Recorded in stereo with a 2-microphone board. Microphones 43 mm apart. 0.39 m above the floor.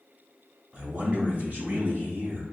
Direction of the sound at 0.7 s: 25° right (ahead or behind).